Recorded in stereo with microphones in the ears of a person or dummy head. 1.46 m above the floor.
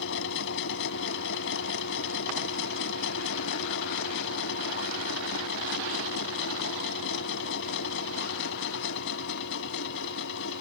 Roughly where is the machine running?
Left.